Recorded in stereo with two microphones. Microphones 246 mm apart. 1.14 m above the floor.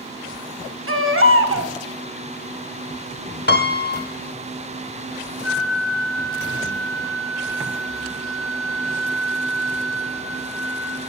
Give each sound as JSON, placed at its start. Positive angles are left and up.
{"t": 0.9, "sound": "a baby crying", "side_deg": -60, "distance_m": 1.5}
{"t": 3.5, "sound": "a piano", "side_deg": 45, "distance_m": 1.1}
{"t": 5.4, "sound": "a flute", "side_deg": 85, "distance_m": 7.0}